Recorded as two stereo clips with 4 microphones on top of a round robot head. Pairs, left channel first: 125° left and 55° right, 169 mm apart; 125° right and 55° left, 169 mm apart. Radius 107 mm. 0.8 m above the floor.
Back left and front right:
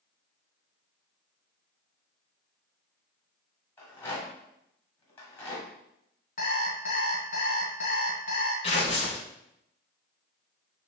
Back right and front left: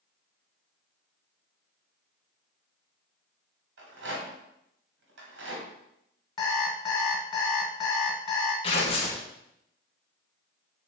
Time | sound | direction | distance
3.8 | a rattle | 50° left | 1.6 m
6.4 | an alarm clock | 165° left | 1.4 m
8.6 | tearing paper | straight behind | 0.6 m